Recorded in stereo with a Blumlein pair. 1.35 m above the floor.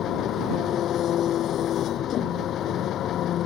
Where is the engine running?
30° left.